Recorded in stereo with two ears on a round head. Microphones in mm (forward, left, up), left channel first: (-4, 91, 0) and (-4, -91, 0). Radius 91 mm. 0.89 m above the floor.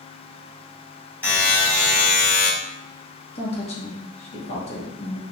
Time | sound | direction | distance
1.2 | a buzzer | 5° left (ahead or behind) | 1.8 m
3.4 | a woman speaking | 30° left (ahead or behind) | 0.8 m